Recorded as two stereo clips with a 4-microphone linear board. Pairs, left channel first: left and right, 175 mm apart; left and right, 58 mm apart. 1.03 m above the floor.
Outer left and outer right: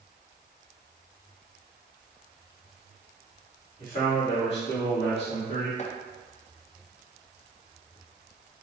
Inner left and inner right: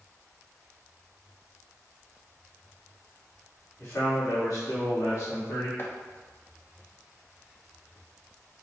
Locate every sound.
3.8 s a man speaking: 45° left (ahead or behind), 1.8 m; by 5.7 s 55° left (ahead or behind), 2.5 m
5.8 s chopping: 40° left (ahead or behind), 0.6 m